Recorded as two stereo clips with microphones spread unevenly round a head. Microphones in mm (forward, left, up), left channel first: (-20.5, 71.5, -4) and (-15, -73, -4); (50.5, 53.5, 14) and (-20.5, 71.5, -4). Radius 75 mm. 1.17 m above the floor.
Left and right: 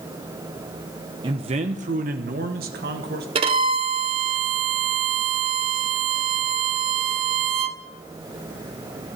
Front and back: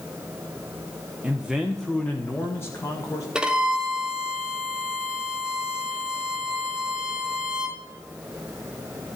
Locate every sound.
1.2 s a man speaking: 135° right, 0.9 m; by 3.2 s 80° right, 1.8 m
3.4 s a violin: 100° right, 1.0 m